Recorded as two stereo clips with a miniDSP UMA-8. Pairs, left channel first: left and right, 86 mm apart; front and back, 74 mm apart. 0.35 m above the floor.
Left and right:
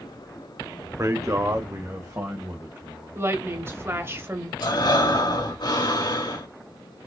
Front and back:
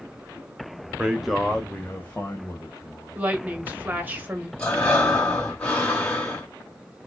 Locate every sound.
1.0 s a man speaking: 110° right, 1.0 m; by 3.2 s 40° right, 1.5 m
3.1 s a woman speaking: 125° right, 1.4 m
4.6 s breathing: 80° left, 2.5 m